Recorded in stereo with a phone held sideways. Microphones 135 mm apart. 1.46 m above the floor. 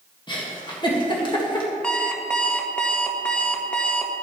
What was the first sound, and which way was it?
A giggle, 35° left (ahead or behind).